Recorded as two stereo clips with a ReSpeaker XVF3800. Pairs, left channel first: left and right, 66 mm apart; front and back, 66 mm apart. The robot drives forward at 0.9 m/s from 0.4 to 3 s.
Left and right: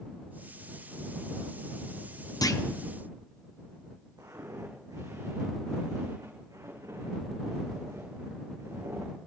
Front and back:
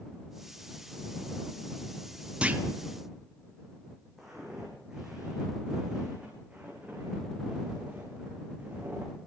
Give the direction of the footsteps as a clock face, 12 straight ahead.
3 o'clock.